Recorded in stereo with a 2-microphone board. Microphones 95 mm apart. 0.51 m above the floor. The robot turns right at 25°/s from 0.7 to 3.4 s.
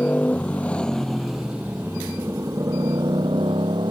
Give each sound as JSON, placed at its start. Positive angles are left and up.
{"t": 0.0, "sound": "a motorcycle", "azimuth_deg": 170}